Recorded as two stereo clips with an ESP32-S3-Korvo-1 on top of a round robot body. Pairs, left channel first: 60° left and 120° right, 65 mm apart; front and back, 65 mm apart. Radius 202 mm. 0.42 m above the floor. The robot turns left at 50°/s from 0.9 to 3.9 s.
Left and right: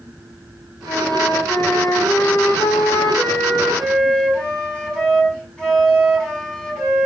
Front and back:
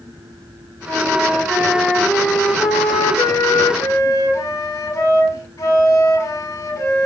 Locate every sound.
0.9 s a flute: 130° left, 6 m; by 7.1 s 20° right, 6 m